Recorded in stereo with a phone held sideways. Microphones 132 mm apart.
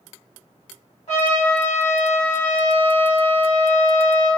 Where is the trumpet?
60° left (ahead or behind), 1.7 m.